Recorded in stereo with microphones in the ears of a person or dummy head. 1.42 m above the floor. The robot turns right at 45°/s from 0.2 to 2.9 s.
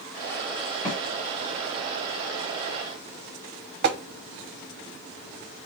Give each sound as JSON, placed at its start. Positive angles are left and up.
{"t": 0.8, "sound": "a snare drum", "side_deg": 15, "distance_m": 1.5}
{"t": 3.8, "sound": "tapping", "side_deg": -60, "distance_m": 0.7}